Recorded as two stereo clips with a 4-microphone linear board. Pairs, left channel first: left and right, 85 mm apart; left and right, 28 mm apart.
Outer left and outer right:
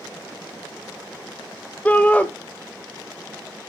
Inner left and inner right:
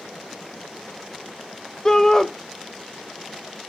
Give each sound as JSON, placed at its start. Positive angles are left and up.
{"t": 1.9, "sound": "a shout", "side_deg": 15, "distance_m": 0.9}